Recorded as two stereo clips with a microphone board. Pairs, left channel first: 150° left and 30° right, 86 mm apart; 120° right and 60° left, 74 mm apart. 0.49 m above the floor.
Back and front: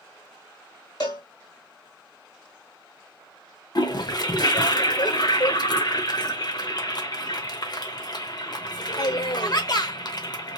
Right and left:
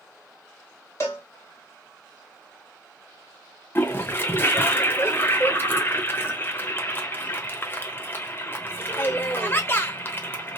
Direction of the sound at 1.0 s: 175° right.